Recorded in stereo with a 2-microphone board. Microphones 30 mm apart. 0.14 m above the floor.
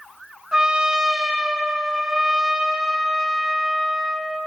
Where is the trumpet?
25° right (ahead or behind), 0.8 m.